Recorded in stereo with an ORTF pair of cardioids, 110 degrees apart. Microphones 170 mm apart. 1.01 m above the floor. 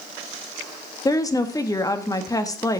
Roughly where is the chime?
I don't hear a chime.